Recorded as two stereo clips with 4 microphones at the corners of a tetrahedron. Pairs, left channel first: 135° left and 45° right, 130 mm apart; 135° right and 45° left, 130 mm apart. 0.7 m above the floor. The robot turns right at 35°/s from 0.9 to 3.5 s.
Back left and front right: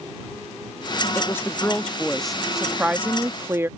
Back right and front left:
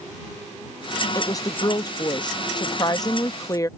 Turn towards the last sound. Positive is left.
turn(degrees=-95)